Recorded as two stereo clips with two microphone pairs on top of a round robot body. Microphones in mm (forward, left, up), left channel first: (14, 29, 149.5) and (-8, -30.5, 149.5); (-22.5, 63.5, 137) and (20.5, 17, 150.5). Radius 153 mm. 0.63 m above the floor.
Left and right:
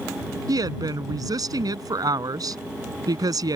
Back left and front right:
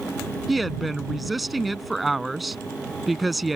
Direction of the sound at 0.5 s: 135° right.